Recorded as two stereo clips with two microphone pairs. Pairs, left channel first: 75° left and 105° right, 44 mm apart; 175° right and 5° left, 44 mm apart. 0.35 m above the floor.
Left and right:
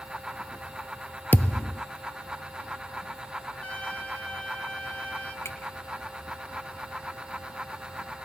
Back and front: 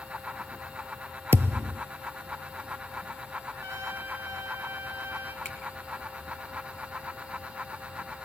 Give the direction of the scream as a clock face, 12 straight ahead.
No scream in this recording.